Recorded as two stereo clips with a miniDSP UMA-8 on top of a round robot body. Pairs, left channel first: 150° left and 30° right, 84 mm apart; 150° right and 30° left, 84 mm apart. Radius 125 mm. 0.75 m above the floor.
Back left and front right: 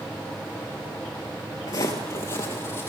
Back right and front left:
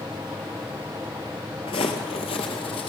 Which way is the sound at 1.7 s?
160° right.